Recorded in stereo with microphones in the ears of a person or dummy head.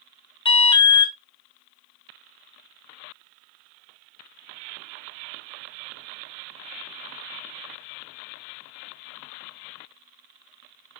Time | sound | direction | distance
0.5 | an alarm | 25° left (ahead or behind) | 0.8 m